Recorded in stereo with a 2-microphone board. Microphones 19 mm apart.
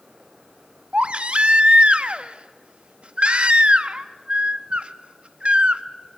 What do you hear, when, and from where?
0.9 s a baby crying: 60° right (ahead or behind), 0.9 m